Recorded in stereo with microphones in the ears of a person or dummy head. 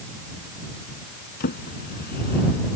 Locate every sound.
1.4 s a drawer: 45° left (ahead or behind)